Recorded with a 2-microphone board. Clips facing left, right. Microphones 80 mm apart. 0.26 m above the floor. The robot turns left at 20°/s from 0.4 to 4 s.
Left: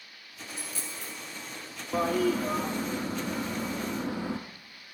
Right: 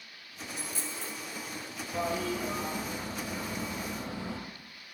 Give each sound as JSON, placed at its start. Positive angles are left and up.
{"t": 0.5, "sound": "a dropped coin", "side_deg": -20, "distance_m": 1.1}
{"t": 1.9, "sound": "a toilet flushing", "azimuth_deg": 120, "distance_m": 0.8}